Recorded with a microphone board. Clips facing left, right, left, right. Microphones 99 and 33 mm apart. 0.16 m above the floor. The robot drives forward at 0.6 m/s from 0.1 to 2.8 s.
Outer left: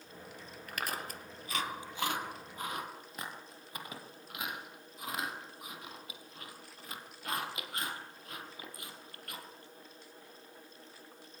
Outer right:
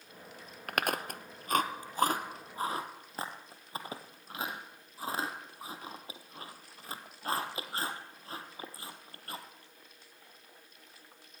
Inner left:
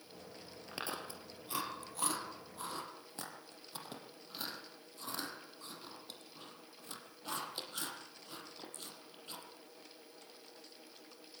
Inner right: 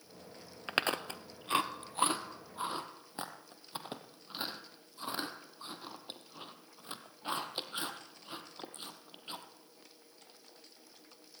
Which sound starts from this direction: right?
Chewing, at 0.7 s.